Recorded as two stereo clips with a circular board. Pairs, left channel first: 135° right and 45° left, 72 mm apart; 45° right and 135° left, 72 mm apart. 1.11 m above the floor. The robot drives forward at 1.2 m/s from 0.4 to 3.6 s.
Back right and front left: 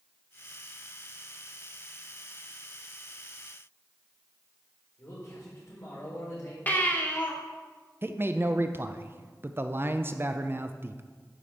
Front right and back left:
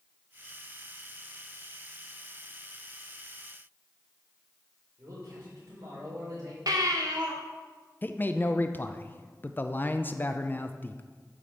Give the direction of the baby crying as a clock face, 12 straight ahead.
7 o'clock.